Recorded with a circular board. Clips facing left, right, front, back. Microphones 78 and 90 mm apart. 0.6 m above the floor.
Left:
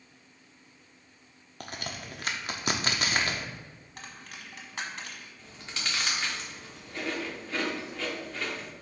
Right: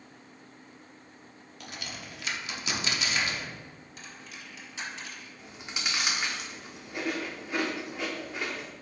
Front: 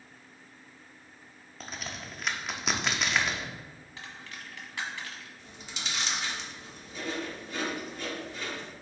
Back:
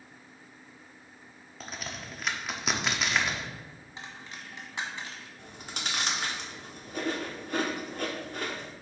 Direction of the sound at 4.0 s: 115° left.